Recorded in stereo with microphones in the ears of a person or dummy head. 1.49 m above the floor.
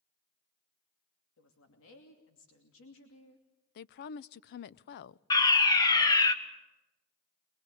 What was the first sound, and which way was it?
A woman speaking, 70° left (ahead or behind).